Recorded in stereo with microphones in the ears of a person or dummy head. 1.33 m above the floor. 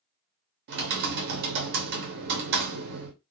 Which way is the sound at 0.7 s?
55° right (ahead or behind).